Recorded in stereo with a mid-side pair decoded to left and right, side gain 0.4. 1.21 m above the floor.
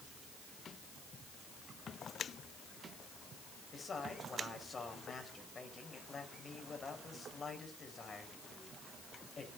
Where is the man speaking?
40° left, 7.5 m.